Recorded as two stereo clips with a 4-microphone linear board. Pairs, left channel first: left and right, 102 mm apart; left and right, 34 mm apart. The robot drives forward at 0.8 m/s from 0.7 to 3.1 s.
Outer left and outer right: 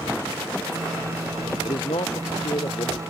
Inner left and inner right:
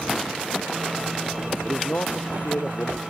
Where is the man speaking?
60° left (ahead or behind); by 3.0 s 65° left (ahead or behind).